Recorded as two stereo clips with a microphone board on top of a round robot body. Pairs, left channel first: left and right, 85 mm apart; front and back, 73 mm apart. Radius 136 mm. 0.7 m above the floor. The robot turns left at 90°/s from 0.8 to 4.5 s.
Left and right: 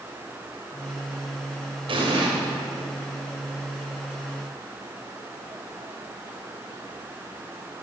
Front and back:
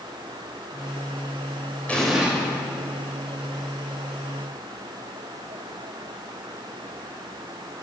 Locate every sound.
1.9 s an explosion: 75° right, 2 m; by 2.3 s 110° right, 2 m